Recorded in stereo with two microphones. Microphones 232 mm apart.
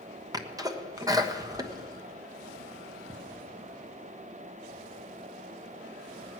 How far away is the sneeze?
About 1.1 m.